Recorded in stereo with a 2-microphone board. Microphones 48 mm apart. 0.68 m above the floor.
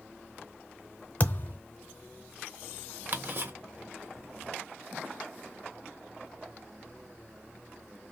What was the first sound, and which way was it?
A thud, 45° left (ahead or behind).